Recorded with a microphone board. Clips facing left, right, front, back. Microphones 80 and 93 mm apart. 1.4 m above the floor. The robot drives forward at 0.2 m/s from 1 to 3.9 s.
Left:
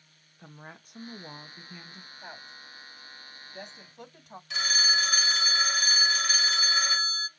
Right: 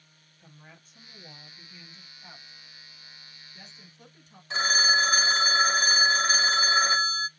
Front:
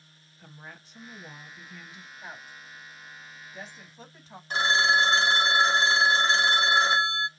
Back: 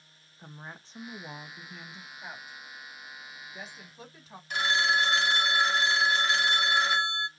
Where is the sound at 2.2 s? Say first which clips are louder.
Left 7 dB, even; 90° left, 3.5 m; by 4.4 s 95° left, 3.5 m.